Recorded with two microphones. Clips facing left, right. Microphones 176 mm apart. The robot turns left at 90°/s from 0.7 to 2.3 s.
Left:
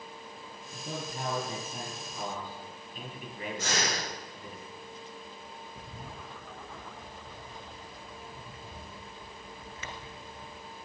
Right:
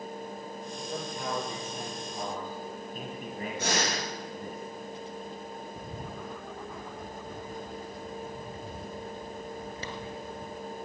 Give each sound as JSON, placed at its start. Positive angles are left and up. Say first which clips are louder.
{"t": 0.7, "sound": "a man speaking", "louder": "even", "azimuth_deg": 95, "distance_m": 5.5}
{"t": 3.6, "sound": "breathing", "louder": "right 3 dB", "side_deg": -60, "distance_m": 5.5}
{"t": 5.8, "sound": "a bird", "louder": "right 6 dB", "side_deg": -35, "distance_m": 1.5}